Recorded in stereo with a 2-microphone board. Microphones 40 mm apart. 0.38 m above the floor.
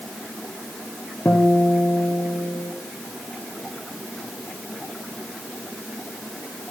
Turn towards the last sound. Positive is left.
turn(degrees=55)  # may be behind; listen again after turning